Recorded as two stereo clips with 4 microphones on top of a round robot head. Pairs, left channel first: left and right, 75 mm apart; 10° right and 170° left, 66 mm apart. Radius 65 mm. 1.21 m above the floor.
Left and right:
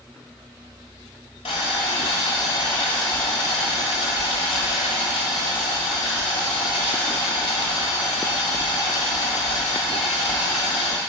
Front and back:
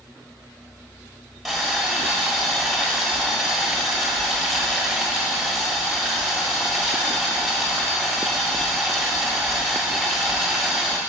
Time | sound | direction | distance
1.4 | boiling | 80° left | 1.5 m